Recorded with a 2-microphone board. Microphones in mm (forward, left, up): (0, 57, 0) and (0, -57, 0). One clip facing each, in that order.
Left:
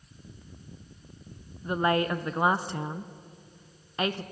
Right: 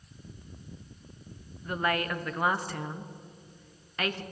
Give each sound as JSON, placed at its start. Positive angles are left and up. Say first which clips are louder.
{"t": 1.6, "sound": "a woman speaking", "louder": "left 4 dB", "side_deg": 25, "distance_m": 1.0}